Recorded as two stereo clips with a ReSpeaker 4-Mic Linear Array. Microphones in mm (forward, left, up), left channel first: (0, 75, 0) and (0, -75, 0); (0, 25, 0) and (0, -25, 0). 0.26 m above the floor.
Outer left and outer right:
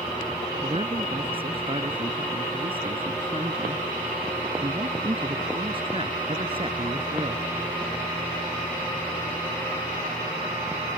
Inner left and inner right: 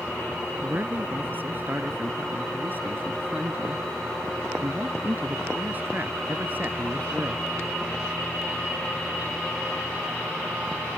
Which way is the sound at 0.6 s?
35° right (ahead or behind).